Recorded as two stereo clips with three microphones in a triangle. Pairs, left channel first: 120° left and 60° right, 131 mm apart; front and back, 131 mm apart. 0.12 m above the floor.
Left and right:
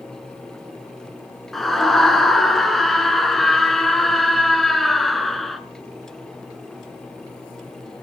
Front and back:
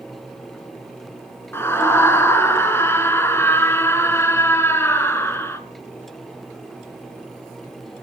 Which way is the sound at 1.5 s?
35° left.